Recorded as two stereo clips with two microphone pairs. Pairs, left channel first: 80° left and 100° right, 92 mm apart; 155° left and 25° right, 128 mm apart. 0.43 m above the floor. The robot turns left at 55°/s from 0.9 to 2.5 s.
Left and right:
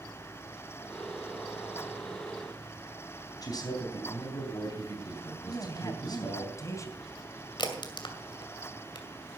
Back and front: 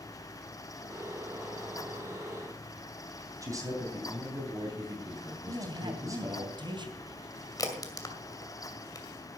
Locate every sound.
3.4 s a man speaking: 35° left, 3.5 m
5.5 s a man speaking: 25° left, 2.5 m
7.6 s a crack: 95° left, 2 m